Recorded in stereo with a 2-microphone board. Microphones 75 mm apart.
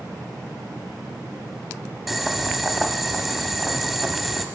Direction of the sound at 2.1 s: Centre (ahead or behind).